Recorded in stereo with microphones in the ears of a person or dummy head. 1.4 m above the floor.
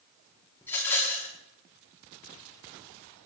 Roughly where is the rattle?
Centre.